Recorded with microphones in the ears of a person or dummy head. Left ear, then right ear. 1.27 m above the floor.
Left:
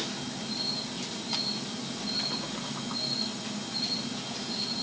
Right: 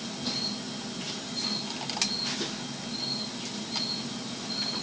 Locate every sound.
Only background noise.